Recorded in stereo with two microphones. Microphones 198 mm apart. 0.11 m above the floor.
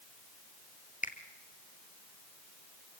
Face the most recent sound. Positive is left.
turn(degrees=40)  # may be behind; listen again after turning